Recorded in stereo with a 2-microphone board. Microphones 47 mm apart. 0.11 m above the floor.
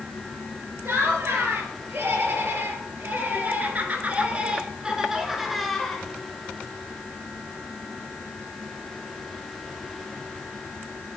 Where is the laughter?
65° right (ahead or behind), 3 m; by 6.0 s 10° left (ahead or behind), 1.5 m.